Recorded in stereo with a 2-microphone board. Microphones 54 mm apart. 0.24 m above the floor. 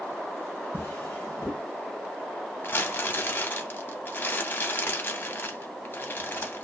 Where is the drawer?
40° left (ahead or behind), 1.6 m.